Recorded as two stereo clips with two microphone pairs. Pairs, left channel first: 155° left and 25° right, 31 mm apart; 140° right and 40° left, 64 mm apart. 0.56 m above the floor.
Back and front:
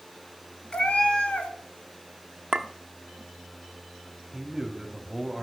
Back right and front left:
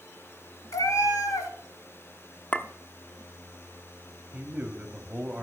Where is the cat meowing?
150° right, 1.2 m.